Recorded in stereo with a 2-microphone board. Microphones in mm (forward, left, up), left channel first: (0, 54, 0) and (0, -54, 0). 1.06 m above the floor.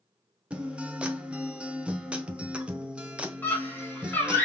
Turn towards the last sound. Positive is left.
turn(degrees=15)  # may be behind; listen again after turning